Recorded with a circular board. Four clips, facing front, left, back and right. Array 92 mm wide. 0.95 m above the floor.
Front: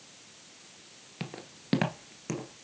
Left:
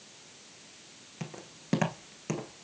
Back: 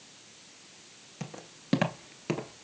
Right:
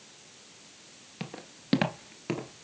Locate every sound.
1.2 s footsteps: 30° right, 1.0 m; by 2.6 s 160° right, 1.0 m